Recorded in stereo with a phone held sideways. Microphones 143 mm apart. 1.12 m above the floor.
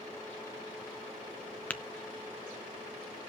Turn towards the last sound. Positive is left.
turn(degrees=10)  # may be behind; listen again after turning